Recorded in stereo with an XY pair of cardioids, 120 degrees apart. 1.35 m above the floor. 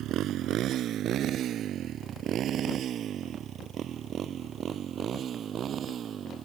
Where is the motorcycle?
65° right; by 6.5 s 45° right.